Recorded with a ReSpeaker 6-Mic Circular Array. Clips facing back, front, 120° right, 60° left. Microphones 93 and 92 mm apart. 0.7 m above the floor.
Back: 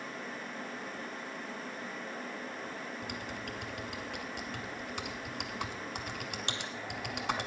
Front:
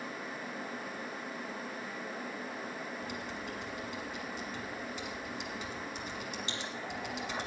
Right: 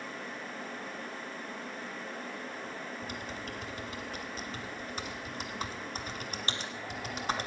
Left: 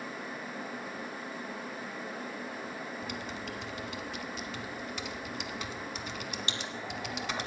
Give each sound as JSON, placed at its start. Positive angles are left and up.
{"t": 3.0, "sound": "typing on a keyboard", "azimuth_deg": -165, "distance_m": 1.2}